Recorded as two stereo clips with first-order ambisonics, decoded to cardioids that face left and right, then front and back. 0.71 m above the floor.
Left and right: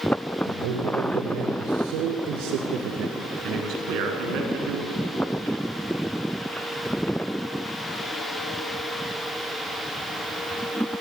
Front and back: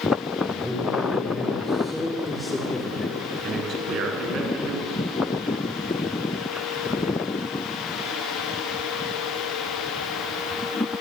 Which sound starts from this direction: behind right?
A man speaking, at 3.4 s.